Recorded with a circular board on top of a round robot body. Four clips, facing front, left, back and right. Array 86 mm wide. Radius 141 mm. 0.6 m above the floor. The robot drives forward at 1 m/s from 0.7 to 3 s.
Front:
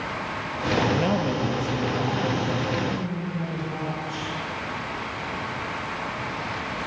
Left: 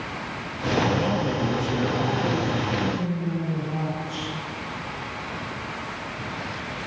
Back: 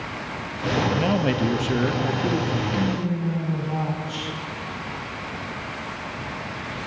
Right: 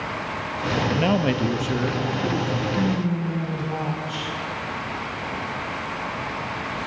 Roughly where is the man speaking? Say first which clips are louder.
Right 3 dB, back 1 dB; right.